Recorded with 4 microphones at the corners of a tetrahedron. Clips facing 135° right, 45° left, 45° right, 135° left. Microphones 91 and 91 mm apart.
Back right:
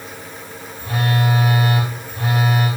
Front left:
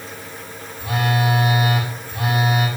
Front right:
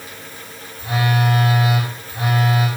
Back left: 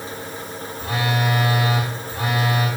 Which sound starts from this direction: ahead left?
A phone buzzing, at 0.8 s.